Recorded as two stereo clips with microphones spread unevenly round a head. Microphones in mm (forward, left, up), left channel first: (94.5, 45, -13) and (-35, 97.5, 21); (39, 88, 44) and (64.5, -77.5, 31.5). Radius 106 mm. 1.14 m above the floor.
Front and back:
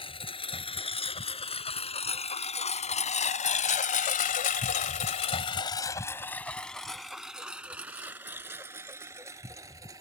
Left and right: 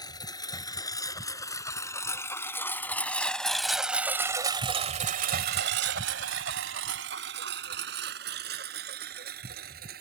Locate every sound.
0.0 s a lawn mower: 35° left; by 10.0 s 130° right